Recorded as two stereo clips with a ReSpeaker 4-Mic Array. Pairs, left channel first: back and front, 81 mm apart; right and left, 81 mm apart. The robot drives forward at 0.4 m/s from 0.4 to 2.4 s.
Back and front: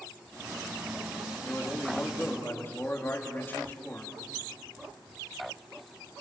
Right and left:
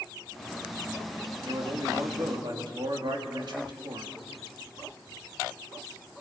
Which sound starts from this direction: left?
A man speaking, at 1.4 s.